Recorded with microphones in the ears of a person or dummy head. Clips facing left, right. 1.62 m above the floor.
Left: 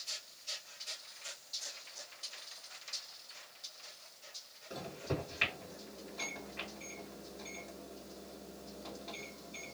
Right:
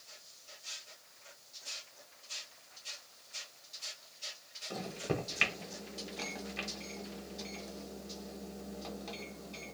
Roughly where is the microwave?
Right.